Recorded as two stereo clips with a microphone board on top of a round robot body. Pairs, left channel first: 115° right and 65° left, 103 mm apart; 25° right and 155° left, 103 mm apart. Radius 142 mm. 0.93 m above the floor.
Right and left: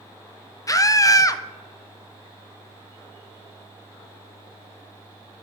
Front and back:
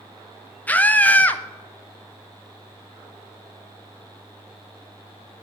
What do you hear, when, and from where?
0.7 s a scream: 90° right, 0.8 m